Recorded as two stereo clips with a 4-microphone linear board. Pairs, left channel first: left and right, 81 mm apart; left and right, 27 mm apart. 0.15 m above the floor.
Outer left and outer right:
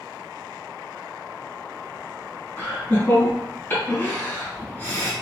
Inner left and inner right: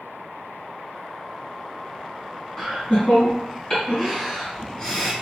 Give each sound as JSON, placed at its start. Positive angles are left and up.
{"t": 2.6, "sound": "laughter", "side_deg": 25, "distance_m": 1.8}